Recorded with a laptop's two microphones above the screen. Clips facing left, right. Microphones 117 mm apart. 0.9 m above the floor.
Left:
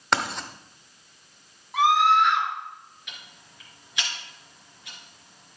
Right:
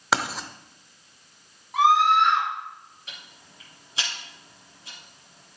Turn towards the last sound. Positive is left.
turn(degrees=-35)  # may be behind; listen again after turning